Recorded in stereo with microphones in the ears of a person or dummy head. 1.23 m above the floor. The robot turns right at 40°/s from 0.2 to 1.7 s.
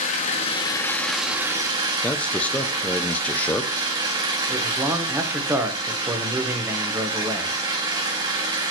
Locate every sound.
0.0 s an engine running: 140° left, 1.4 m; by 8.7 s 160° right, 1.4 m
2.0 s a man speaking: 10° left (ahead or behind), 0.6 m
4.5 s a man speaking: 10° right (ahead or behind), 1.1 m